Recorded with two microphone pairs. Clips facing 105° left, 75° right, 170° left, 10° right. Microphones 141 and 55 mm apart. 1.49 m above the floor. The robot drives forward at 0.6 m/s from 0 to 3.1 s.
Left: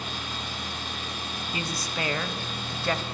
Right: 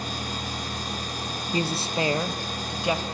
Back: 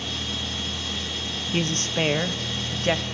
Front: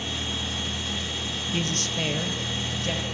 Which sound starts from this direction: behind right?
A woman speaking, at 1.5 s.